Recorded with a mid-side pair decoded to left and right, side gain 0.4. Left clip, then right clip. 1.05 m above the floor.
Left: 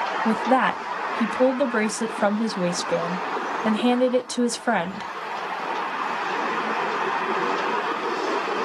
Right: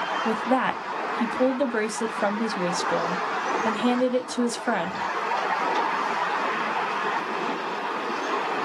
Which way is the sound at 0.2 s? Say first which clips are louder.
Left 4 dB; 25° left.